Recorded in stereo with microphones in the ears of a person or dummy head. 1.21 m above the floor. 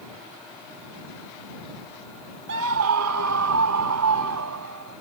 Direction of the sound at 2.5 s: 65° right (ahead or behind).